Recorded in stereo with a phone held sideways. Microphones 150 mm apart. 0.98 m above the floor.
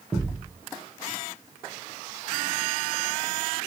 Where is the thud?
Centre (ahead or behind), 0.8 m.